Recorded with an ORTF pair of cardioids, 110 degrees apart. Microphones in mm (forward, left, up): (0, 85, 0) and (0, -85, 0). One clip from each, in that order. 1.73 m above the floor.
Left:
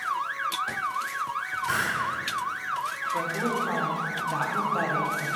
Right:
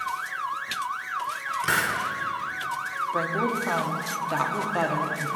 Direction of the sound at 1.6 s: 60° right.